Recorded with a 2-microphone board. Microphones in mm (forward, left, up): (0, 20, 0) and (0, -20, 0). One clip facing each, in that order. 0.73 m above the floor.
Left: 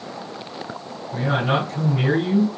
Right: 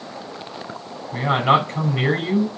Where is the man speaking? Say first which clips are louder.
Right 4 dB; 55° right (ahead or behind), 4.5 m.